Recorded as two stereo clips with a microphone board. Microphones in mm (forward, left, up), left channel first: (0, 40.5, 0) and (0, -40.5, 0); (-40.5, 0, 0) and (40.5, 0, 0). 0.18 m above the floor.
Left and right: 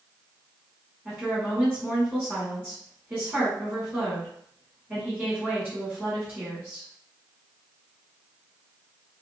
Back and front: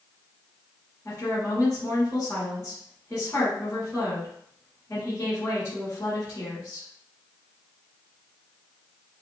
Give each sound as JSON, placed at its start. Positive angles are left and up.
{"t": 1.1, "sound": "a woman speaking", "azimuth_deg": -150, "distance_m": 1.5}